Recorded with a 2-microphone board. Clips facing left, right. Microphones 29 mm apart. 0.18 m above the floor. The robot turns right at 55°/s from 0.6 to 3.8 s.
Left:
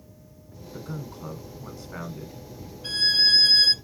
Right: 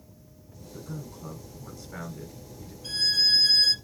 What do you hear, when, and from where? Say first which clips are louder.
0.7 s a man speaking: left 3 dB; 75° left, 1.6 m; by 2.7 s 175° right, 1.6 m
2.8 s a violin: left 3 dB; 60° left, 0.8 m; by 3.7 s 110° left, 0.8 m